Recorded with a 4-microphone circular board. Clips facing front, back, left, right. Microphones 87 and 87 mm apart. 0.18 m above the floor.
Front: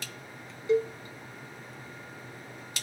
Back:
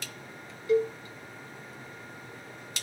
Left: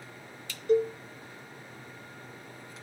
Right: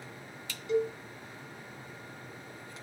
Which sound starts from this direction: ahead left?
A cowbell, at 0.7 s.